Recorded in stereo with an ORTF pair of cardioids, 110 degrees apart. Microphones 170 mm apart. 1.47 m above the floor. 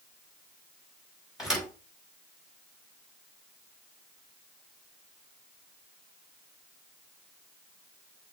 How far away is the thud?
About 6 m.